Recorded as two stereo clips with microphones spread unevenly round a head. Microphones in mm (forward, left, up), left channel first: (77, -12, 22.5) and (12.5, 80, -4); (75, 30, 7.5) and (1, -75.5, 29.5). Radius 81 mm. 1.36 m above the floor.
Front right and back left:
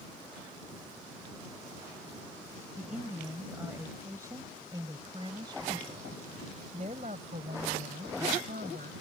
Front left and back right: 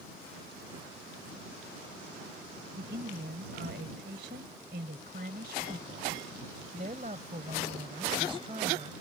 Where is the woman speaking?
150° right; by 8.9 s 170° left.